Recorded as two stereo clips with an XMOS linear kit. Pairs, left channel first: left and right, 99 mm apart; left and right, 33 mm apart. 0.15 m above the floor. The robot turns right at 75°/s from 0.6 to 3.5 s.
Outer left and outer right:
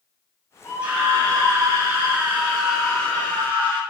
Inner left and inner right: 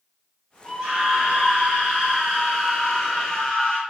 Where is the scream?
160° right, 1.8 m; by 3.8 s 55° left, 1.8 m.